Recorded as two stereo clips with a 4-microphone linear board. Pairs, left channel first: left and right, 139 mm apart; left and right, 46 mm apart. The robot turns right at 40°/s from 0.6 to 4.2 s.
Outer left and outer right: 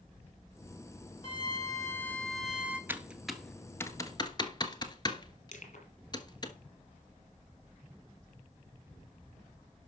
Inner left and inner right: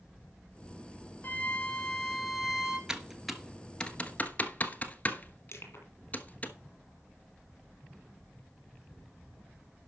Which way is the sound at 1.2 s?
135° left.